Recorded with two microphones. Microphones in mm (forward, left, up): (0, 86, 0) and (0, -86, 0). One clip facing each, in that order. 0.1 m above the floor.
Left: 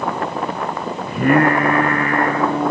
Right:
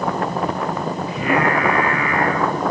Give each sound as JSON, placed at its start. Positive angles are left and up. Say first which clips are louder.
{"t": 1.1, "sound": "singing", "louder": "left 6 dB", "side_deg": 50, "distance_m": 2.5}